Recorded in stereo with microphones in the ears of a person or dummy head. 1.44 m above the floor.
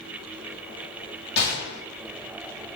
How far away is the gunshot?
About 1.0 m.